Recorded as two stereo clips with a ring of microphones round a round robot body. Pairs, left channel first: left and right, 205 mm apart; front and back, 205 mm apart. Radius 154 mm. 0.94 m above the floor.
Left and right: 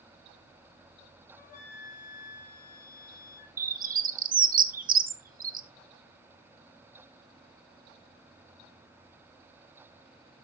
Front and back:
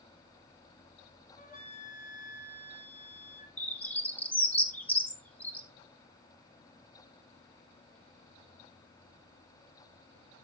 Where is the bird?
80° right, 0.9 m.